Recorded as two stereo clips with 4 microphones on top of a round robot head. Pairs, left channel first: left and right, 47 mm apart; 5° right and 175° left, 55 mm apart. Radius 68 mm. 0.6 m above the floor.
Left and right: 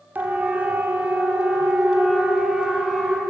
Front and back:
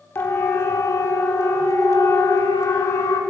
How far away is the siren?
About 3 m.